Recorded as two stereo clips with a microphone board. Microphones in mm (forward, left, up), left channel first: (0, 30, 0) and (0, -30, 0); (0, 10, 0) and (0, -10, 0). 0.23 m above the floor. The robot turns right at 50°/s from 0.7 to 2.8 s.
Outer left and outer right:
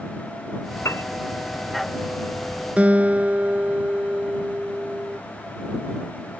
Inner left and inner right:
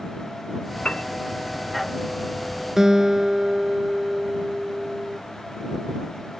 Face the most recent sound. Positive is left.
turn(degrees=-25)  # may be behind; listen again after turning